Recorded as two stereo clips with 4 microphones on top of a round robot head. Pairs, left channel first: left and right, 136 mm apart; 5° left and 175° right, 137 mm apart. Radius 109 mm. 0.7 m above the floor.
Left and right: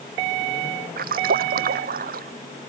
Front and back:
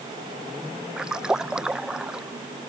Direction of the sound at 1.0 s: 90° right.